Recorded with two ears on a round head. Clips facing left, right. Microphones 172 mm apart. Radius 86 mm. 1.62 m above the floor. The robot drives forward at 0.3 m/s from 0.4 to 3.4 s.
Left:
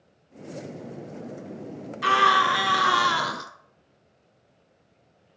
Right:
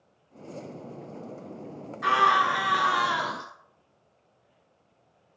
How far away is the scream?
About 0.9 m.